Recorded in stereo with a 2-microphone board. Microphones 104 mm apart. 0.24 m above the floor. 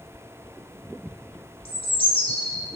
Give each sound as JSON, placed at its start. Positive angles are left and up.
{"t": 1.6, "sound": "a bird", "side_deg": 75, "distance_m": 1.3}